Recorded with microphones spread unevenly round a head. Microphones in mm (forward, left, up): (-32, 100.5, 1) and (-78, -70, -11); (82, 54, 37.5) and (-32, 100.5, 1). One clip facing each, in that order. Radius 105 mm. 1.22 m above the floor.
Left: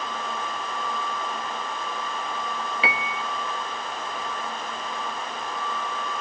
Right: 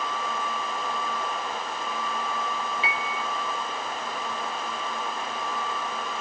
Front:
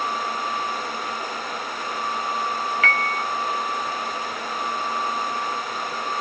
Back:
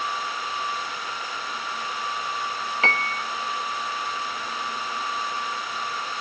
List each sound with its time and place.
2.8 s a piano: 90° left, 0.9 m